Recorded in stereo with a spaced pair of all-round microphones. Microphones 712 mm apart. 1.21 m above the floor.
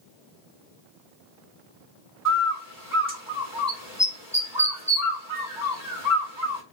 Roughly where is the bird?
Left.